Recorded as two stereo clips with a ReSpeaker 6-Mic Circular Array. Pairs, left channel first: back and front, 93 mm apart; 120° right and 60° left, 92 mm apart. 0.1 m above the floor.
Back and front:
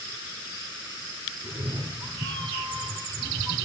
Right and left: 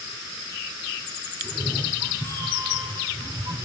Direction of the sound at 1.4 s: 20° left.